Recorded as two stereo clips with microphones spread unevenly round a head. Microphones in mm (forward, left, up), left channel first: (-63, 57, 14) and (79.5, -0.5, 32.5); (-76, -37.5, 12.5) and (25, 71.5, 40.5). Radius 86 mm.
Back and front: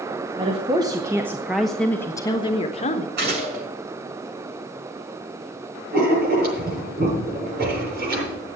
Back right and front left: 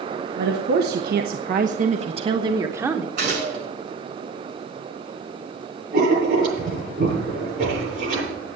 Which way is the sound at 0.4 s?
35° left.